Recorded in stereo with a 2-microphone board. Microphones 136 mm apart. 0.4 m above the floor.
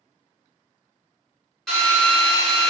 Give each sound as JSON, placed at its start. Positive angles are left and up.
{"t": 1.7, "sound": "a drill", "side_deg": 5, "distance_m": 1.5}